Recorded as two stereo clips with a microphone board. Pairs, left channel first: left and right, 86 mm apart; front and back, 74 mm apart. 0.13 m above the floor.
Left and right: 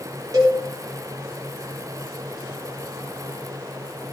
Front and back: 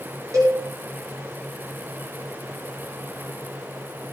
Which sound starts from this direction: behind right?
A cowbell, at 0.3 s.